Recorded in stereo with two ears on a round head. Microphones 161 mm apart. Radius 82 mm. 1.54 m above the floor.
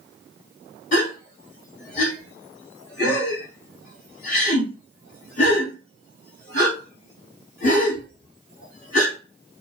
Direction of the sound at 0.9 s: 50° left (ahead or behind).